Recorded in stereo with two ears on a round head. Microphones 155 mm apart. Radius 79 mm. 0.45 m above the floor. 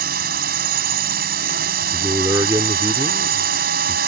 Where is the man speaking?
20° right (ahead or behind).